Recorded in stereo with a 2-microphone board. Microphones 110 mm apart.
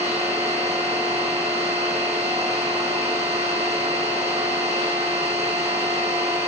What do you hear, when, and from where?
0.0 s an engine running: 80° right, 6.5 m